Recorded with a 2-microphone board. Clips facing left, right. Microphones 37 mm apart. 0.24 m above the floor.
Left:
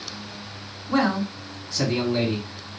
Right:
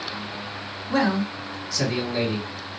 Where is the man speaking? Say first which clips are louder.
Even; 25° left (ahead or behind), 2.5 m.